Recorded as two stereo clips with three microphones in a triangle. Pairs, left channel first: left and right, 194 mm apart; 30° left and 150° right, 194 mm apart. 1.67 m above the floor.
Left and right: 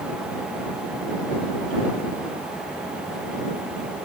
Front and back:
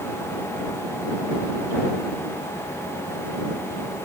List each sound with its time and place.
Only background noise.